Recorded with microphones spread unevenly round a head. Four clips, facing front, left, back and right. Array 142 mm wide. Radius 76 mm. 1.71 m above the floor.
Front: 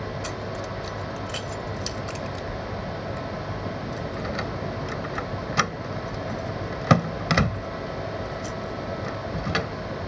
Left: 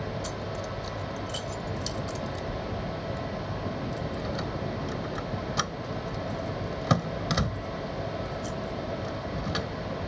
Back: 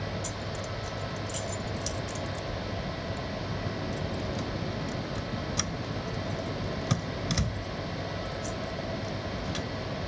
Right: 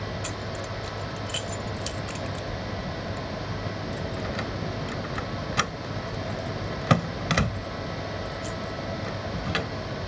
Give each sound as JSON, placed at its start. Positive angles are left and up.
{"t": 0.2, "sound": "keys jangling", "azimuth_deg": -15}